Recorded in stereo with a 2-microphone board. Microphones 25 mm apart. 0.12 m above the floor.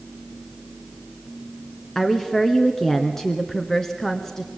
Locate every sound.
1.9 s a woman speaking: 20° left (ahead or behind), 1.4 m